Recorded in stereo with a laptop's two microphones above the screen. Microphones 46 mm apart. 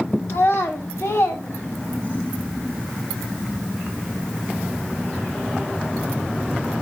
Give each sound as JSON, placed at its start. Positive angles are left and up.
{"t": 0.3, "sound": "a child speaking", "side_deg": 65, "distance_m": 1.0}